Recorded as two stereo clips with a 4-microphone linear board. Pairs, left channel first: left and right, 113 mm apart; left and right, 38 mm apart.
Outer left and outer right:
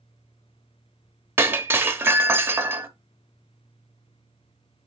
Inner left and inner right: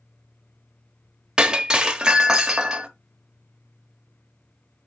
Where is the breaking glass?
20° right (ahead or behind), 0.9 m.